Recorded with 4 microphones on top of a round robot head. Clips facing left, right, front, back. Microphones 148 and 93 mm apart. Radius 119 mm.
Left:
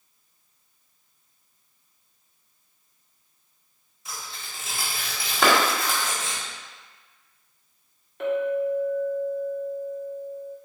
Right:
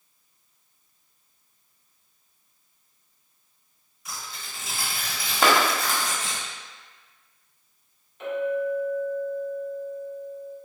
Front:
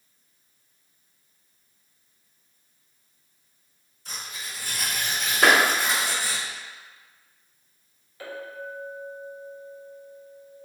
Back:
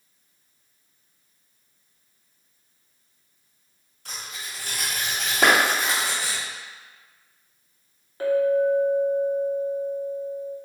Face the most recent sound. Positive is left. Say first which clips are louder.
# left 2 dB, back 17 dB
turn(degrees=125)